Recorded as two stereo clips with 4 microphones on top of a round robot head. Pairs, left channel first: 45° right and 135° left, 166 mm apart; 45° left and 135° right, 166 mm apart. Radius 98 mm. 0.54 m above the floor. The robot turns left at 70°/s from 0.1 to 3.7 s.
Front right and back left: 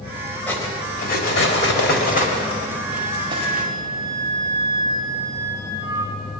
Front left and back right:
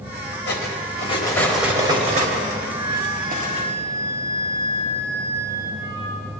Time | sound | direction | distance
0.5 | cutlery clinking | 35° left | 1.8 m
2.7 | a flute | 90° right | 2.5 m